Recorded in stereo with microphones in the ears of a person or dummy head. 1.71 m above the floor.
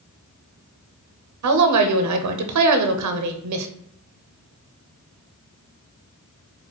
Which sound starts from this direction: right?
A woman speaking, at 1.4 s.